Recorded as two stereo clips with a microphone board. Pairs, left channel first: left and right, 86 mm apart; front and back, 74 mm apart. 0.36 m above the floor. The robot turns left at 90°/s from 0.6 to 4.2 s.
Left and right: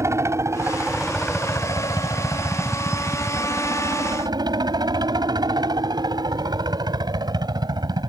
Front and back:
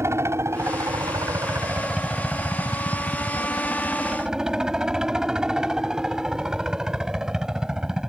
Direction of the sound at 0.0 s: 135° right.